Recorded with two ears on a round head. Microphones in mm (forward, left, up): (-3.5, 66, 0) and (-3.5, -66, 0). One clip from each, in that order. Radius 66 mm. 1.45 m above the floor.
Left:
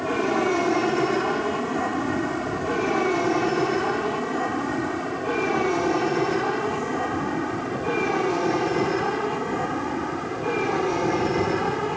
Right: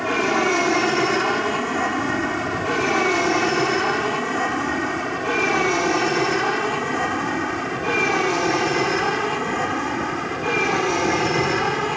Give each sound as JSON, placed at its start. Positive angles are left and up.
{"t": 0.0, "sound": "an aircraft", "side_deg": -45}